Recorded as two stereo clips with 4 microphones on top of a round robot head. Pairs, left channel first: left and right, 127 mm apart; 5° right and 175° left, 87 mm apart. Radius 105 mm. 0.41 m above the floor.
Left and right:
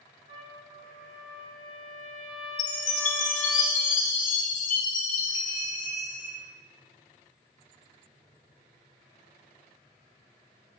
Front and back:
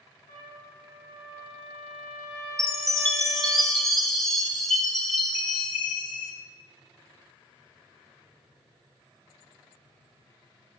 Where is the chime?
80° left, 1.0 m.